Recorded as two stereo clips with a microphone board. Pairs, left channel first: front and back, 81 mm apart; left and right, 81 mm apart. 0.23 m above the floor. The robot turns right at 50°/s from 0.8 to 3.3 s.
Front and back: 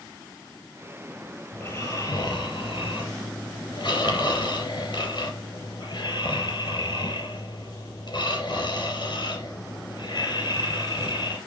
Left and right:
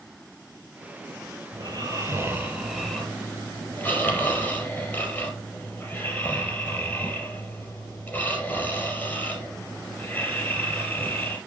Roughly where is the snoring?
Right.